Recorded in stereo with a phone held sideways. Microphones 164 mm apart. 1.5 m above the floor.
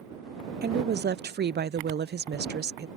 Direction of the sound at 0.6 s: 85° right.